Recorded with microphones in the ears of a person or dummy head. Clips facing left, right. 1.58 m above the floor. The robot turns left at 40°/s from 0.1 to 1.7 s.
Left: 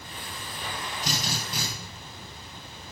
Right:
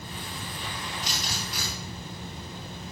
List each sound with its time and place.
1.0 s a drill: 50° left (ahead or behind), 9 m; by 1.7 s 25° left (ahead or behind), 9 m